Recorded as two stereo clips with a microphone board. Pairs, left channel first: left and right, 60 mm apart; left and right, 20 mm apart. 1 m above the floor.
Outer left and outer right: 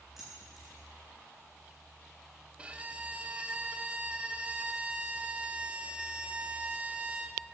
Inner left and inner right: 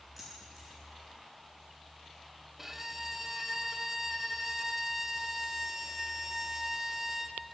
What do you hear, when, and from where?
0.2 s keys jangling: centre (ahead or behind), 4 m
2.6 s a violin: 20° right (ahead or behind), 0.7 m